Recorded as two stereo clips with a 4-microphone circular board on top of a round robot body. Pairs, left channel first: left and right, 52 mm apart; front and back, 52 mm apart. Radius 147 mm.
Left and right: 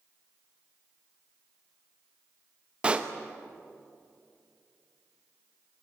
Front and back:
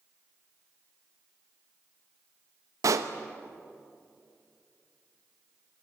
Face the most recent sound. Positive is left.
turn(degrees=-160)